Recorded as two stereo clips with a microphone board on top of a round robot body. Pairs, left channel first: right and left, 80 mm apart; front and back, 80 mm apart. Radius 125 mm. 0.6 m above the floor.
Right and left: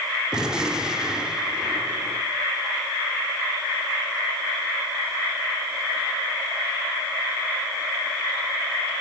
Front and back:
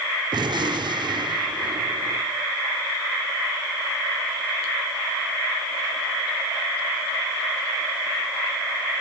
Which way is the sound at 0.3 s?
170° left.